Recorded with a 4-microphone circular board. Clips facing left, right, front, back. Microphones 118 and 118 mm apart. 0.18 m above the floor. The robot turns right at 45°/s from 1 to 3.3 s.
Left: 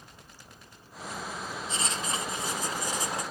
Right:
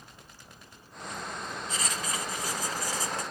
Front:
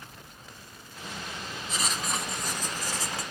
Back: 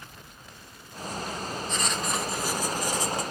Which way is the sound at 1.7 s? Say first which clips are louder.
Left 2 dB, back 1 dB; 70° left.